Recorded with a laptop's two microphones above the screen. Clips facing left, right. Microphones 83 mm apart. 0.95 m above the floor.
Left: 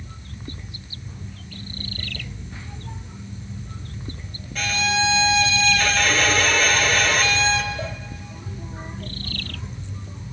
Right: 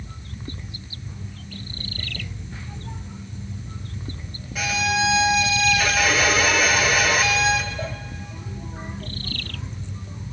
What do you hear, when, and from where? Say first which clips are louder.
4.5 s a violin: even; 10° right (ahead or behind), 0.6 m